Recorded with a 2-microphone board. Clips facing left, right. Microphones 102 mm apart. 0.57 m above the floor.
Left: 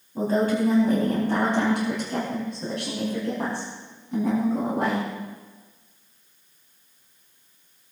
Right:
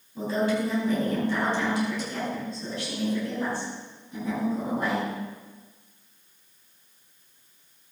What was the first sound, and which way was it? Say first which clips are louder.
A woman speaking: left 3 dB; 40° left (ahead or behind).